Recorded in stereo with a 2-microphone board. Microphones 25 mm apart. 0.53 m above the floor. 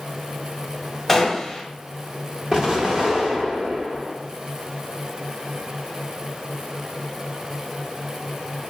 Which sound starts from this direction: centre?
A gunshot, at 1.1 s.